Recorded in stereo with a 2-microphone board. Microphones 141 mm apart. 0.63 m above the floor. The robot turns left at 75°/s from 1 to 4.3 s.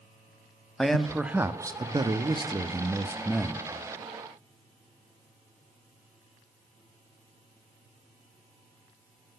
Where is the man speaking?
5° left, 0.6 m; by 3.7 s 165° left, 0.6 m.